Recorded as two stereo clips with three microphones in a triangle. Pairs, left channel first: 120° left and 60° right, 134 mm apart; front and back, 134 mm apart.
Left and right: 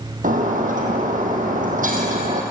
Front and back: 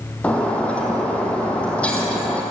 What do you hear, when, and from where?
0.2 s breaking glass: 80° right, 3.5 m